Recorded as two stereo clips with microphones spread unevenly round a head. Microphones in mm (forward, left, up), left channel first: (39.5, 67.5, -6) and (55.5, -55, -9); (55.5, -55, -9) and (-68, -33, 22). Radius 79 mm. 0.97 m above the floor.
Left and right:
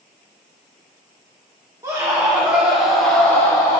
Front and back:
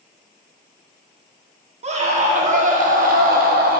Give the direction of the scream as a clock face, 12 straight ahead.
5 o'clock.